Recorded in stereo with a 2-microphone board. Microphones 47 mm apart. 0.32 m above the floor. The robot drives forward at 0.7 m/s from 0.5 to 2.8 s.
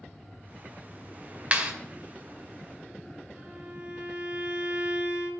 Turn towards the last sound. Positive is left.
turn(degrees=-35)  # may be behind; listen again after turning